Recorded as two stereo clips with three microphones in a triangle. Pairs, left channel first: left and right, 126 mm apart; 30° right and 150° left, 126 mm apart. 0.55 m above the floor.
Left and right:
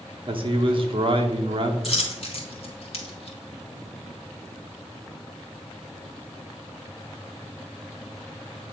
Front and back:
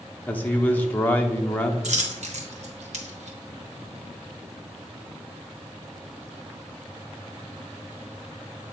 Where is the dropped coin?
125° left, 1.3 m.